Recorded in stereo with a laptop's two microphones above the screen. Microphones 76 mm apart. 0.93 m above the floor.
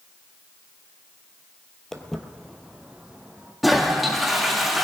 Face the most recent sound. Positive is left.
turn(degrees=0)  # may be behind; listen again after turning